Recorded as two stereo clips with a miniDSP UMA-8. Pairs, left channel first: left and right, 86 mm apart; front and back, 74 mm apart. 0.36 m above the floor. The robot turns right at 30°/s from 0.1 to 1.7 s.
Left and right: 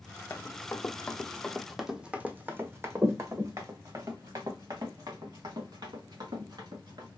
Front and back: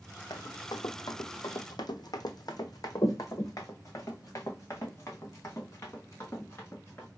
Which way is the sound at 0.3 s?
20° left.